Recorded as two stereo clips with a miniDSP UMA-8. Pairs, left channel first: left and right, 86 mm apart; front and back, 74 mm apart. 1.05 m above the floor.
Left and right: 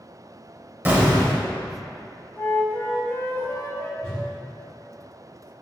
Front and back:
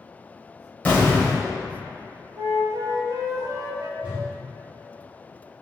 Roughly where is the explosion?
Ahead right.